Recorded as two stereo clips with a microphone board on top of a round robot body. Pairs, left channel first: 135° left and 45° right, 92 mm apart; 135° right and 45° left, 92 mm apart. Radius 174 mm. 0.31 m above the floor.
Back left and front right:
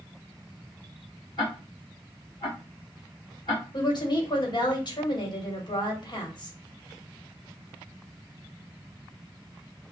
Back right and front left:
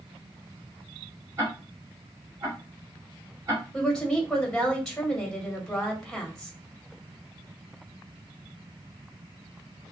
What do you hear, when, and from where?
1.4 s ticking: 95° left, 3 m
3.7 s a woman speaking: 140° left, 1.5 m